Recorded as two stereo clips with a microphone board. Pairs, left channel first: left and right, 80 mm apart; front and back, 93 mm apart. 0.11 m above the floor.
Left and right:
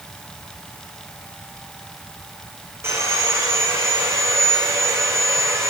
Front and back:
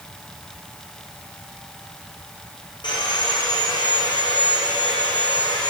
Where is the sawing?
35° right, 7 m.